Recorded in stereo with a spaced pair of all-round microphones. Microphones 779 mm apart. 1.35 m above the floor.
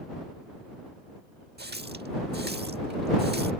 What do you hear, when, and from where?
1.6 s a running tap: 10° right (ahead or behind)